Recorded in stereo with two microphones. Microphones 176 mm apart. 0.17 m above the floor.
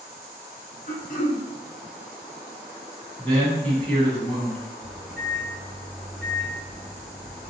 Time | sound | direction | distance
0.9 | throat clearing | 50° left (ahead or behind) | 1.0 m
3.2 | a man speaking | 5° left (ahead or behind) | 1.3 m
4.8 | a microwave | 35° left (ahead or behind) | 1.7 m